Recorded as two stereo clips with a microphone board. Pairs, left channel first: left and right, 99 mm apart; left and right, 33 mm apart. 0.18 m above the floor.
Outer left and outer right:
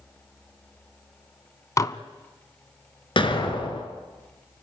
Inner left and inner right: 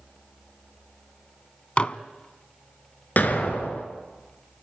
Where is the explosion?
55° left (ahead or behind), 2 m.